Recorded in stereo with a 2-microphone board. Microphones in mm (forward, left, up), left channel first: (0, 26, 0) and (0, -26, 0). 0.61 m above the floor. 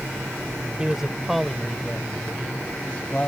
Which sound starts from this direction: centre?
A man speaking, at 0.8 s.